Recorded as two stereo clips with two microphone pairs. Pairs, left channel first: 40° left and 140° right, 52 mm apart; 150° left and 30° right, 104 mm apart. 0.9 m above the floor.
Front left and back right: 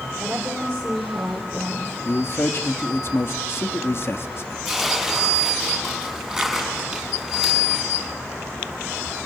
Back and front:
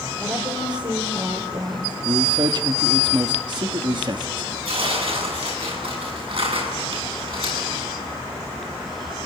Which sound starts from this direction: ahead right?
Tearing paper, at 4.7 s.